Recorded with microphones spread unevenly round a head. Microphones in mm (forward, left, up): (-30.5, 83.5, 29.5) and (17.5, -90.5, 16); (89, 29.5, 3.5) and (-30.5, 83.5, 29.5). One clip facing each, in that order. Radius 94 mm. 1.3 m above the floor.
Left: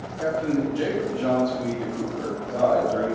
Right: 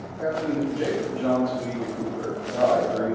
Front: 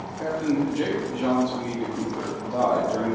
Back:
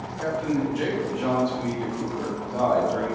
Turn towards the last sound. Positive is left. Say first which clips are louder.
# left 2 dB, front 1 dB
turn(degrees=30)